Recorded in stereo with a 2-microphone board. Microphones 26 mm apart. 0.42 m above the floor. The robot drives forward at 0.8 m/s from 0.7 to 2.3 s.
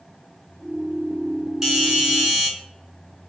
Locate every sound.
1.6 s a doorbell: 20° right (ahead or behind), 3.5 m; by 2.5 s 15° right (ahead or behind), 4 m